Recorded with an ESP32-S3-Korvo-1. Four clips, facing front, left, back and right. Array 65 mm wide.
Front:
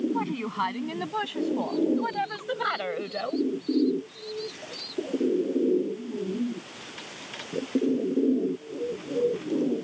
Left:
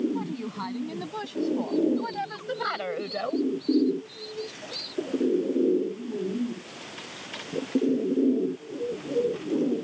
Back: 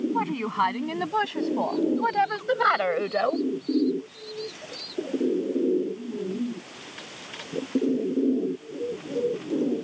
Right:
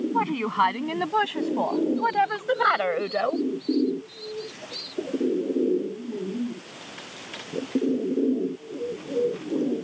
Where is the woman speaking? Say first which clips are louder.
Right 9 dB, back 3 dB; 120° right; by 3.5 s 150° right.